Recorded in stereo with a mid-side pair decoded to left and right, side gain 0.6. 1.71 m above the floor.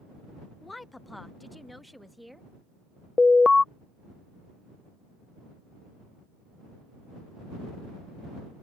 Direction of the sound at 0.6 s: 20° left.